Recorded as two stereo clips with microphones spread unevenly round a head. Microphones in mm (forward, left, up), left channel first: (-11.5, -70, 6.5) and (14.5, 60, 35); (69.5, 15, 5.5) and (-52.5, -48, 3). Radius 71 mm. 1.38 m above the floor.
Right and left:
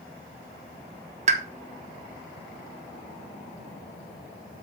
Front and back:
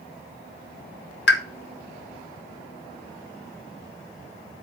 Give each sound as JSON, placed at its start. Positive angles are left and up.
{"t": 1.3, "sound": "a pop", "azimuth_deg": 35, "distance_m": 1.2}